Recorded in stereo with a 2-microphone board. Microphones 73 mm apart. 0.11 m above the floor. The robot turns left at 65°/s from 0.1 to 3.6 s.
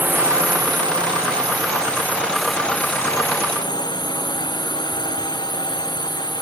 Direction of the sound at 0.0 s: 30° right.